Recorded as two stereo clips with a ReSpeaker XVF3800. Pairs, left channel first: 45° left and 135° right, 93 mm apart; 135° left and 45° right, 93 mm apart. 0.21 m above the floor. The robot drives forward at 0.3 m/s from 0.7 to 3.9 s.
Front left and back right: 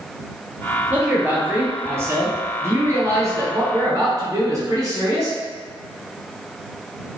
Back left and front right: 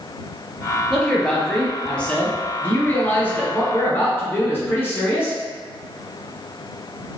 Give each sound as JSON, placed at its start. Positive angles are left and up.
{"t": 0.9, "sound": "a man speaking", "azimuth_deg": -145, "distance_m": 1.1}